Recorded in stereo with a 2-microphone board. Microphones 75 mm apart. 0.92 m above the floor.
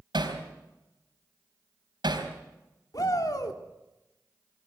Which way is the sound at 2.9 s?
55° left (ahead or behind).